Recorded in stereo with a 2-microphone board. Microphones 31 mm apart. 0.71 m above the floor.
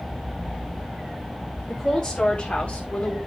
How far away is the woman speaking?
About 2.0 m.